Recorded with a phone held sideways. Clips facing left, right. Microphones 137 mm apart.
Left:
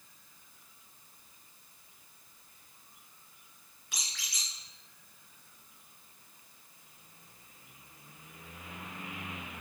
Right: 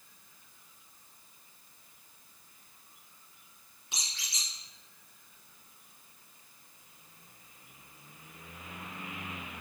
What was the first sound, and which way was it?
A squeak, 20° right (ahead or behind).